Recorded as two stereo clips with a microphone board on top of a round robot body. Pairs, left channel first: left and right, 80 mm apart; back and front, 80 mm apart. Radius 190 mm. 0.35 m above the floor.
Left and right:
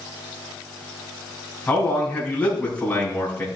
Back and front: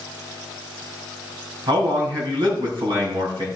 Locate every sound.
1.7 s a man speaking: 20° left, 4.5 m